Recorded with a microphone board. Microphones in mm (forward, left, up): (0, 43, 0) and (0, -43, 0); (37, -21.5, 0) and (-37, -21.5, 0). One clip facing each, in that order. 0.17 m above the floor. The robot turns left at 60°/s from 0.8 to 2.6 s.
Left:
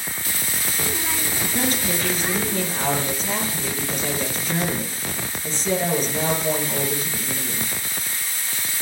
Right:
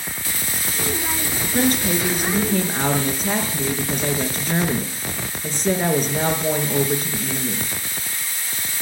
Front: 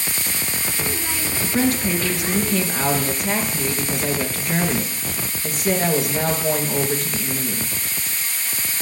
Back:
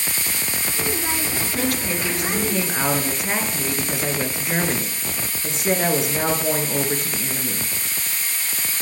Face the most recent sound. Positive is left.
turn(degrees=-110)